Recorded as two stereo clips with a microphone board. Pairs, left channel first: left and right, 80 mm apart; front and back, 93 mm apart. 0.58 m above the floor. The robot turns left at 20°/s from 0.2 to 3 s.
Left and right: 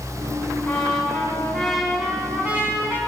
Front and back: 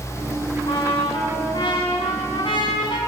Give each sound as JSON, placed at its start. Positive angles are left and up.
{"t": 0.7, "sound": "a trumpet", "azimuth_deg": 20, "distance_m": 3.0}